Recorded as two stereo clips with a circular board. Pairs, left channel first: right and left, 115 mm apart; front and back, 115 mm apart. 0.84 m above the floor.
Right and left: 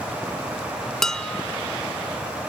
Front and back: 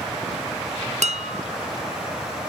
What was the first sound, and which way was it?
Dishes clattering, 175° right.